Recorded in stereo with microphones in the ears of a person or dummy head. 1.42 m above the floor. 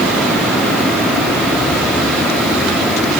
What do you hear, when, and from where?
Only background noise.